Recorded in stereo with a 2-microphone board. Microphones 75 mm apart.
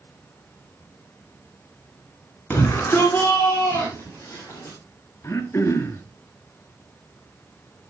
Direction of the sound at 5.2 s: 30° left (ahead or behind).